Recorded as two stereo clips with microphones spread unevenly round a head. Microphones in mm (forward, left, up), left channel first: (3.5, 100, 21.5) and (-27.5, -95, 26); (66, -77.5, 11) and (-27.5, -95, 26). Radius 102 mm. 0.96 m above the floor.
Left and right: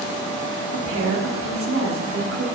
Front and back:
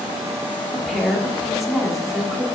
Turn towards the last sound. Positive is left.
turn(degrees=-80)